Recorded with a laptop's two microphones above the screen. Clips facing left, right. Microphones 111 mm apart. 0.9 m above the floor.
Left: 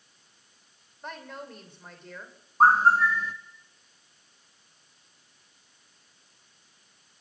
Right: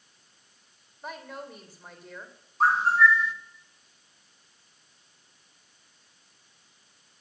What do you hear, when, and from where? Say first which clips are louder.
1.0 s a woman speaking: right 1 dB; 5° right (ahead or behind), 3 m
2.6 s a bird: left 2 dB; 45° left (ahead or behind), 1.3 m